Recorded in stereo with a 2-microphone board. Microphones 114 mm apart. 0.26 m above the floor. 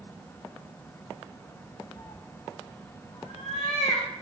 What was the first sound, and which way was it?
A cat meowing, 45° left (ahead or behind).